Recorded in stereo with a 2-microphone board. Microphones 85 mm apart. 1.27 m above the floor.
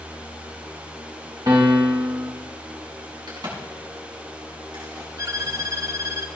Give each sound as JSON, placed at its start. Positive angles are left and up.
{"t": 1.5, "sound": "a piano", "side_deg": -45, "distance_m": 2.0}
{"t": 3.3, "sound": "a crack", "side_deg": -50, "distance_m": 7.5}
{"t": 5.2, "sound": "a violin", "side_deg": -35, "distance_m": 0.7}